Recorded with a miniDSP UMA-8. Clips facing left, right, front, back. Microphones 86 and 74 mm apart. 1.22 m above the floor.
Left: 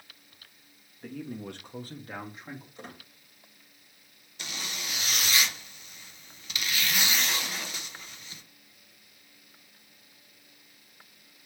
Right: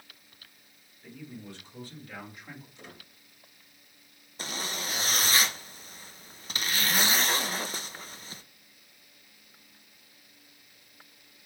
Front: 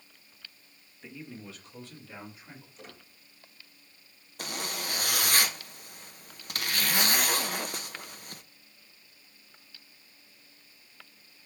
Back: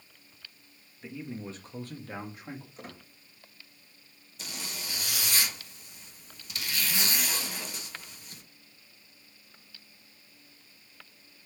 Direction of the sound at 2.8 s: 135° left.